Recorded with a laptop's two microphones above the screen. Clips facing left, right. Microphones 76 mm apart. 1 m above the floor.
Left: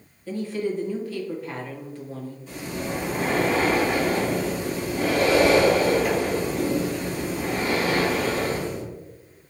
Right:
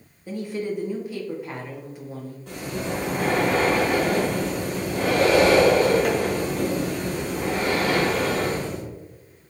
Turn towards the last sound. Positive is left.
turn(degrees=-75)  # may be behind; listen again after turning